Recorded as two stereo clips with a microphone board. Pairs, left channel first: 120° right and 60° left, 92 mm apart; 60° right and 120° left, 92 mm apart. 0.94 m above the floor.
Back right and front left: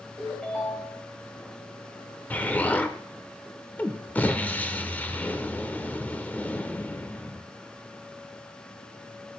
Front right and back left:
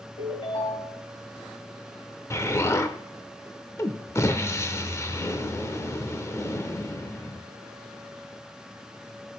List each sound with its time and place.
0.2 s a ringtone: 40° right, 2 m
2.3 s an explosion: 65° right, 0.6 m